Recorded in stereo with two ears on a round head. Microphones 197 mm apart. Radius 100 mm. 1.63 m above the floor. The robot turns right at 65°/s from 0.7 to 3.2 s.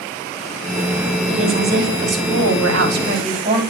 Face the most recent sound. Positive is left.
turn(degrees=-30)